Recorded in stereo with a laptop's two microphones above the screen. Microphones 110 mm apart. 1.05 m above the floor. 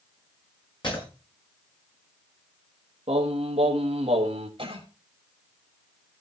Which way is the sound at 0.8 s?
45° left (ahead or behind).